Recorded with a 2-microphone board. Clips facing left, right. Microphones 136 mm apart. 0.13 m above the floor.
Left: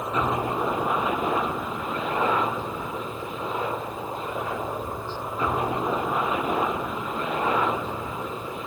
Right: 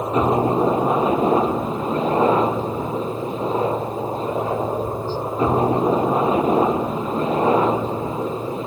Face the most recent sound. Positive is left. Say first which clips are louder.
# right 8 dB
turn(degrees=-30)  # may be behind; listen again after turning